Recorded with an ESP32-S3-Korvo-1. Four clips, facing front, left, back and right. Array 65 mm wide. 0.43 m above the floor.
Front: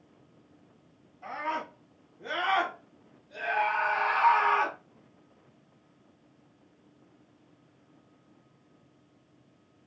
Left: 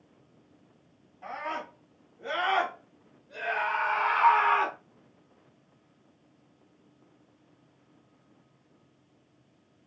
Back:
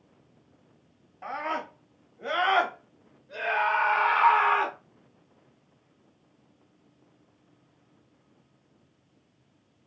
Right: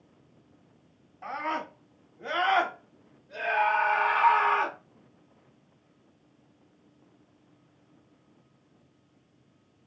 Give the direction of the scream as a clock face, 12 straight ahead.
6 o'clock.